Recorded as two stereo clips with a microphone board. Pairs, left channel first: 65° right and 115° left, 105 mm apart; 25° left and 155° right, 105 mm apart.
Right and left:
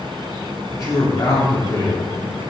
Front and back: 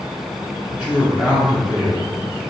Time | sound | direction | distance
0.7 | a woman speaking | 80° right | 1.4 m